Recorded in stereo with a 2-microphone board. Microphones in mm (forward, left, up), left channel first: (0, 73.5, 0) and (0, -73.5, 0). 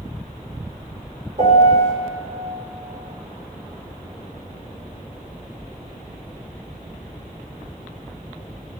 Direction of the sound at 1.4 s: 60° right (ahead or behind).